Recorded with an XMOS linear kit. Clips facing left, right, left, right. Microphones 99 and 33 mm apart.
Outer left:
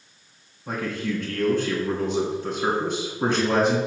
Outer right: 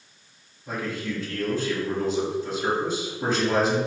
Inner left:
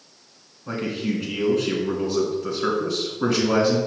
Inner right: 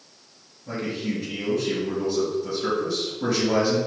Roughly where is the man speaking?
Left.